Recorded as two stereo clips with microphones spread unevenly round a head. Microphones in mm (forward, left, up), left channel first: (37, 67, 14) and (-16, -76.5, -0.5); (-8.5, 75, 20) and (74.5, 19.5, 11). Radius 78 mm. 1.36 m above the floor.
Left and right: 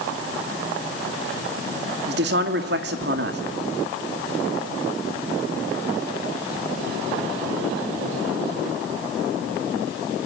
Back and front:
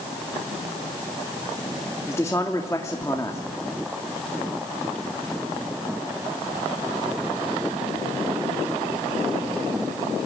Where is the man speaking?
140° right, 2 m.